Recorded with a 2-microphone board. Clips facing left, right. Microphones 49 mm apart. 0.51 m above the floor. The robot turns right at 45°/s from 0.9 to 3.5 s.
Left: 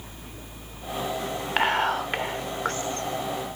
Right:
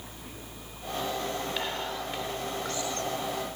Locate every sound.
1.6 s whispering: 50° left (ahead or behind), 1.4 m; by 3.5 s 15° left (ahead or behind), 1.4 m